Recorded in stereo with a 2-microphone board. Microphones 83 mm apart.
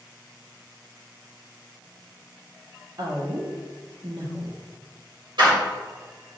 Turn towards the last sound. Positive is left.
turn(degrees=-75)  # may be behind; listen again after turning